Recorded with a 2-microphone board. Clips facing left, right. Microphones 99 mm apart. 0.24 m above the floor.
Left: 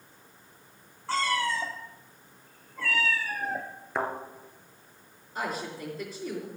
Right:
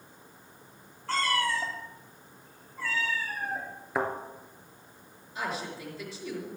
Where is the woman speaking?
45° left (ahead or behind), 4.5 m.